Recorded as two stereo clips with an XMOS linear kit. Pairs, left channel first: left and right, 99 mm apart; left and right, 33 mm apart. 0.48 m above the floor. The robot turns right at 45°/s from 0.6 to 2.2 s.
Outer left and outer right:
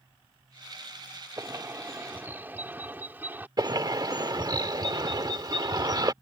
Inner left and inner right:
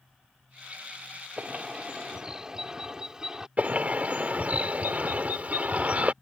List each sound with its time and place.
1.4 s a bird: 75° right; by 3.5 s 40° right
3.6 s a bird: 45° right (ahead or behind)